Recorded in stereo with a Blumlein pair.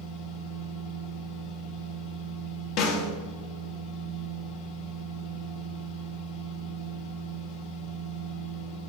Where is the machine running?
45° left, 1.2 m.